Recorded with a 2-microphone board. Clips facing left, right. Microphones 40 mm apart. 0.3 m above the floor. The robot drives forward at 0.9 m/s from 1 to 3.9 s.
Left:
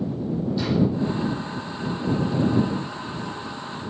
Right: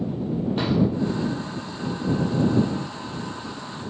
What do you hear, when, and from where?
0.6 s a drawer: 55° right (ahead or behind), 4 m